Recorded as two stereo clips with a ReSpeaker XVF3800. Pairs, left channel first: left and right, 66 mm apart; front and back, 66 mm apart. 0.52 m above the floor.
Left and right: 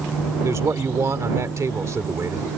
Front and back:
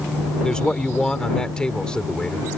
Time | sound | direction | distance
0.4 | a man speaking | 75° right | ?